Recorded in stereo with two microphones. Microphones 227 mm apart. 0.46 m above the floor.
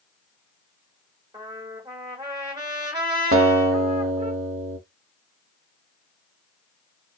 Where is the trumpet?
20° right (ahead or behind), 1.4 m.